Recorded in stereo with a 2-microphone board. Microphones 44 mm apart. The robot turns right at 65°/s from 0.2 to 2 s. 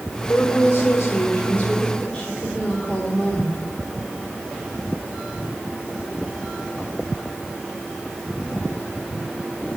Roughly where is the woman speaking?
Ahead left.